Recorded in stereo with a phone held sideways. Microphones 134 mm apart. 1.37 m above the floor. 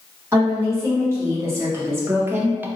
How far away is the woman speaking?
About 1.8 m.